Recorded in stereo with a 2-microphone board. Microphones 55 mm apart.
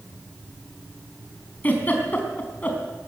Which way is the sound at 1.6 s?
30° left (ahead or behind).